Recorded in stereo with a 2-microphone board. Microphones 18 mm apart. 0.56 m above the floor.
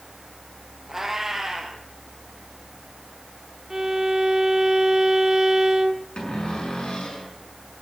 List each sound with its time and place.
0.9 s a cat meowing: 25° right (ahead or behind), 2.5 m
3.7 s a violin: 30° right (ahead or behind), 1.5 m
6.2 s a cupboard door: 80° left, 6 m